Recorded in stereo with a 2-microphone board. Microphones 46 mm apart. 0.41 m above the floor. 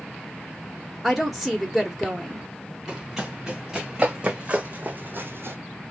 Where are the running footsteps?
5° right (ahead or behind), 3 m; by 5.6 s 65° right (ahead or behind), 1.1 m.